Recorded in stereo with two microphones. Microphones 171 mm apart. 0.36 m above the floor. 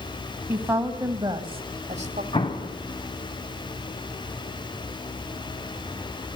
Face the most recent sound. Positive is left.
turn(degrees=30)  # may be behind; listen again after turning